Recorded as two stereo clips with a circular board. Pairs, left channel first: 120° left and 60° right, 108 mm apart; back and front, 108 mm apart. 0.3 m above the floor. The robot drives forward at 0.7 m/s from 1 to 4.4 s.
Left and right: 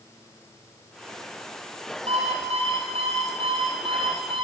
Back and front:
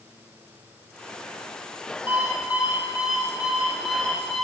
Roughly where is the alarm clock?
Right.